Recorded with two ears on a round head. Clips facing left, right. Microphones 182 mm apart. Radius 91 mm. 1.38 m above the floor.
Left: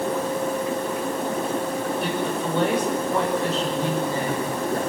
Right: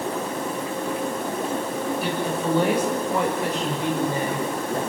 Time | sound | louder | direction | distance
2.0 | a woman speaking | even | centre (ahead or behind) | 7 m